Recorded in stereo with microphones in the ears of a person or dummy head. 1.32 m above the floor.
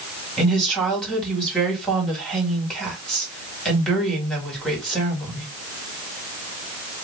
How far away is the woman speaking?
About 2.0 m.